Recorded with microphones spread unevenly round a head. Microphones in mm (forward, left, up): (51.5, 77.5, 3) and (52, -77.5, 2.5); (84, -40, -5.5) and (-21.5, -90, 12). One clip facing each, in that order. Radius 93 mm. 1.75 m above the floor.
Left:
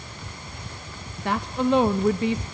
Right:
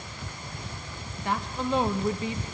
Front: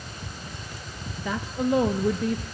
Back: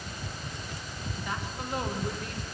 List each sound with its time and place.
1.2 s a woman speaking: 60° left, 0.6 m